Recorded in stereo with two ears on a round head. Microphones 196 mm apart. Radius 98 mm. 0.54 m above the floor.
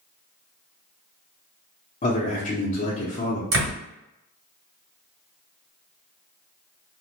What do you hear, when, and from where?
2.0 s a man speaking: 35° left (ahead or behind), 0.7 m
3.5 s a door slam: 65° right (ahead or behind), 1.6 m